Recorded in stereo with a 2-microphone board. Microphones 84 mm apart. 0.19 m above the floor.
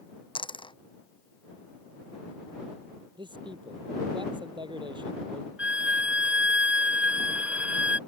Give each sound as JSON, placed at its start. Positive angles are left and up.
{"t": 0.3, "sound": "a dropped coin", "side_deg": 80}
{"t": 3.2, "sound": "a man speaking", "side_deg": -70}
{"t": 5.6, "sound": "a violin", "side_deg": -15}